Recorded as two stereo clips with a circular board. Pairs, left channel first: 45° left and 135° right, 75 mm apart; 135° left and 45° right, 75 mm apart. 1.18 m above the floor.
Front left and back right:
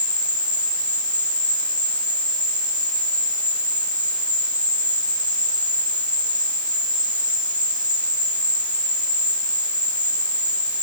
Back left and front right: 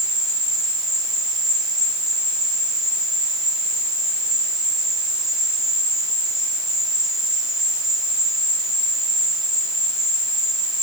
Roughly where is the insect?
Ahead left.